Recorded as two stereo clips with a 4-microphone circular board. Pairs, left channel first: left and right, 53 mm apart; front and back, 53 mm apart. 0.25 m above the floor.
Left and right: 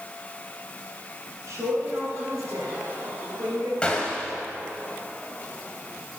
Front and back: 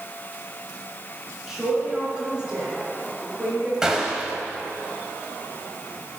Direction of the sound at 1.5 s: 100° right.